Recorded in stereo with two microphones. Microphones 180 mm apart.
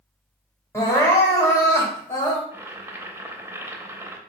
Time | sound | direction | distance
0.7 | crying | 15° left (ahead or behind) | 1.4 m
2.5 | boiling | 15° right (ahead or behind) | 0.6 m